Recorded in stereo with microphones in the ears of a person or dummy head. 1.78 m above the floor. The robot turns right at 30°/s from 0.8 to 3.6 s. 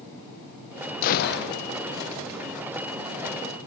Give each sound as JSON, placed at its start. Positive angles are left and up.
{"t": 1.0, "sound": "a gunshot", "side_deg": 50, "distance_m": 0.8}